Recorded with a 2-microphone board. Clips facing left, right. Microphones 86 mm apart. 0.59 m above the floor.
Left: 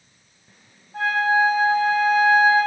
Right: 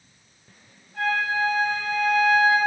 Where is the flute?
70° left (ahead or behind), 2.0 m.